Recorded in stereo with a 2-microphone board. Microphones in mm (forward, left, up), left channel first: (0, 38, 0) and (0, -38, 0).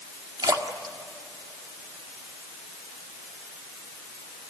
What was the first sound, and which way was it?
A splash, 60° right (ahead or behind).